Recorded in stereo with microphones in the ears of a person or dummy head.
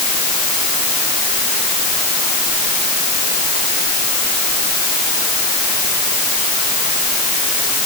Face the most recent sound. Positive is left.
No sound to turn to.